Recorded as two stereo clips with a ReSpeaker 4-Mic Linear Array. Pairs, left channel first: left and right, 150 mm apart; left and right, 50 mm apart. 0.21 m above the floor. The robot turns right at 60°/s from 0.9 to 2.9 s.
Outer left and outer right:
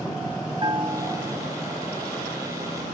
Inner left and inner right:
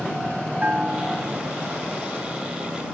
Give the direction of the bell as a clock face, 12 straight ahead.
5 o'clock.